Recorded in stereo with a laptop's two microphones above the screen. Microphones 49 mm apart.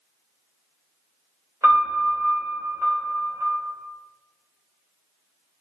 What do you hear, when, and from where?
1.6 s a piano: 90° right, 1.1 m